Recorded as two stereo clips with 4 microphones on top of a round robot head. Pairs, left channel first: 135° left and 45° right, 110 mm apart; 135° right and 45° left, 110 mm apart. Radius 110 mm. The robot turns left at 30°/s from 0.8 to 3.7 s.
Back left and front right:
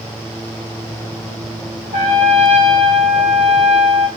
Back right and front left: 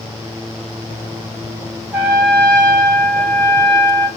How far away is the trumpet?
About 2.5 m.